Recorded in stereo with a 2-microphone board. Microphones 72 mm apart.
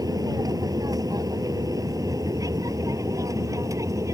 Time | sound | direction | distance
0.0 | an aircraft | 60° right (ahead or behind) | ?